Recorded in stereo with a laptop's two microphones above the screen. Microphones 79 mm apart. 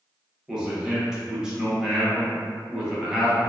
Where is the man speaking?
10° right (ahead or behind), 0.8 m.